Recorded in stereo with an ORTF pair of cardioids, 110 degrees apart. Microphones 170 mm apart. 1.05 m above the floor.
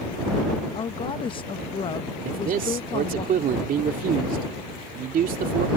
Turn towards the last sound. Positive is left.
turn(degrees=-55)